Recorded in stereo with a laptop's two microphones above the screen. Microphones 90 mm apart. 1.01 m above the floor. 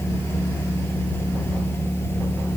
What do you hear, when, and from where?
0.0 s a machine running: 25° left (ahead or behind)